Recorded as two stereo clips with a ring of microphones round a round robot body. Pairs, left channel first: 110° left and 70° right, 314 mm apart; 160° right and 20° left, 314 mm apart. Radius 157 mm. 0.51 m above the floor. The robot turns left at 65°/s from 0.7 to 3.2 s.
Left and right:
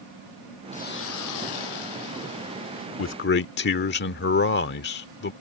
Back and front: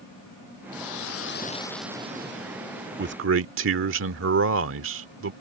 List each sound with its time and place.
0.7 s a hiss: 175° right; by 2.9 s 40° left
3.0 s a man speaking: 75° left; by 5.3 s 65° left